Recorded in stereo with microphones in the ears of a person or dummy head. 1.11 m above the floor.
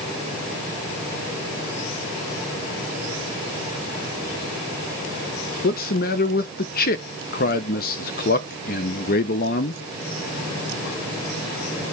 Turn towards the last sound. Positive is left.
turn(degrees=50)  # may be behind; listen again after turning